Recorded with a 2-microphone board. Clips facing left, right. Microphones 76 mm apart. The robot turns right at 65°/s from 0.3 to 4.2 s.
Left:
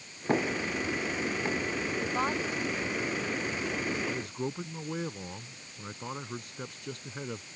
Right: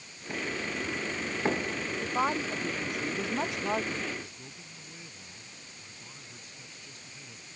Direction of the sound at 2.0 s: Straight behind.